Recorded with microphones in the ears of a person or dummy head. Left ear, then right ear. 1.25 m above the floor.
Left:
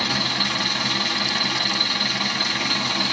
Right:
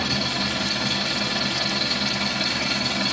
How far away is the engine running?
About 1.5 m.